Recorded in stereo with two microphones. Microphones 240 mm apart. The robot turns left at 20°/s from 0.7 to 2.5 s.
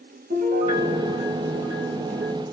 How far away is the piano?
About 2 m.